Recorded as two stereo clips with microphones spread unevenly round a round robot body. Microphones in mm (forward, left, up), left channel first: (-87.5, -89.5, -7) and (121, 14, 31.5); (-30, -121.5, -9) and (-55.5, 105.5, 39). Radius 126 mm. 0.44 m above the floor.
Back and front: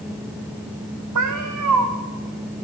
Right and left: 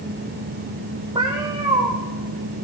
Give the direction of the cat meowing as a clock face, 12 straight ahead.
11 o'clock.